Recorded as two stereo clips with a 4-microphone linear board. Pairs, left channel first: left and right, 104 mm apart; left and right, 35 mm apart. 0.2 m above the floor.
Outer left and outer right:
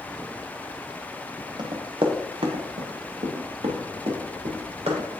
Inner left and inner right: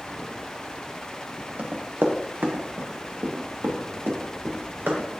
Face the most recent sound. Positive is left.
turn(degrees=-90)